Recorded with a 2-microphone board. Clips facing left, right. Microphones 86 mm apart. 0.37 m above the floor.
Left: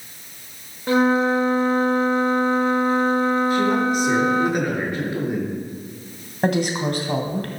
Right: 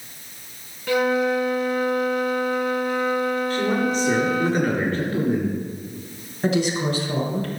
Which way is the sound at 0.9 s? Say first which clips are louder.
Left 3 dB; 35° left (ahead or behind).